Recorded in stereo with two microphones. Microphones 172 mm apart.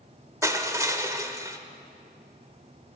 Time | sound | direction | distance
0.4 | crushing | 20° right (ahead or behind) | 0.9 m